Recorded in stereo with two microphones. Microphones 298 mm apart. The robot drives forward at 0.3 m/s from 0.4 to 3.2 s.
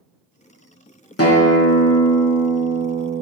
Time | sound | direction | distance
1.2 | a guitar | 50° left (ahead or behind) | 0.8 m